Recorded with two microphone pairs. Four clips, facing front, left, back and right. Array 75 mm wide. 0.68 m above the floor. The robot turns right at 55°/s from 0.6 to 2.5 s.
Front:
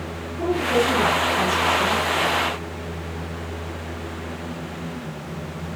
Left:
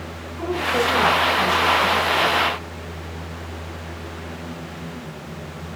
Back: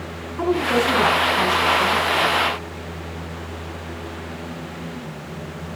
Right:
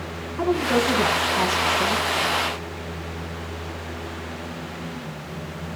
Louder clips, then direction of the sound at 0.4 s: Right 1 dB, back 1 dB; 145° right.